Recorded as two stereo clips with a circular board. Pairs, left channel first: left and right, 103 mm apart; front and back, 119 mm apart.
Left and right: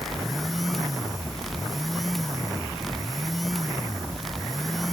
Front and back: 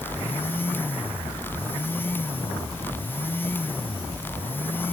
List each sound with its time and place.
Only background noise.